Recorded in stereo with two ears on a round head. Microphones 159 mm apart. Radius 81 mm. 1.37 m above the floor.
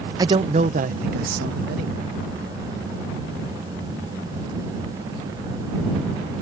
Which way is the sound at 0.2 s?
20° right (ahead or behind).